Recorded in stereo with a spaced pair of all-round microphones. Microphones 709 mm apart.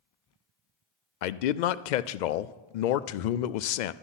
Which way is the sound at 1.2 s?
85° left.